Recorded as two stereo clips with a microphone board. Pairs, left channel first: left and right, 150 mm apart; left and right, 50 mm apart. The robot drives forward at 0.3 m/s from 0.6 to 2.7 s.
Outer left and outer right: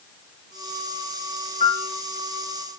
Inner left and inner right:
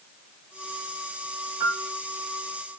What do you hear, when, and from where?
1.6 s a piano: 55° right (ahead or behind), 2 m; by 1.9 s 60° right (ahead or behind), 2 m